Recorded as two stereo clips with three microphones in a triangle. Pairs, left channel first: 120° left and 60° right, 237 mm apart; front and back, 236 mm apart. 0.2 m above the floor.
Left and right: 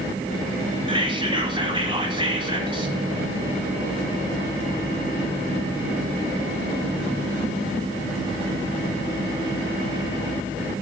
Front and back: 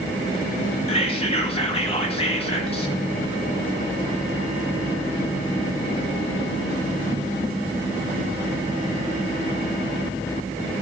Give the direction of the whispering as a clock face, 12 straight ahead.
1 o'clock.